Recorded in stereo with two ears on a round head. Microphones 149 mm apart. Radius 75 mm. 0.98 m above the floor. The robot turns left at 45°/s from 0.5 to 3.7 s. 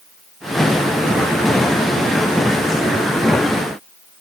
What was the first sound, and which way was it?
Only background noise.